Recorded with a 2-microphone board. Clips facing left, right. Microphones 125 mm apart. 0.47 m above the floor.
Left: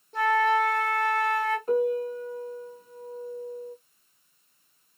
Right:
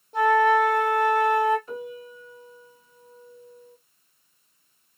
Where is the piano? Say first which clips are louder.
Left 12 dB; 45° left (ahead or behind), 0.8 m.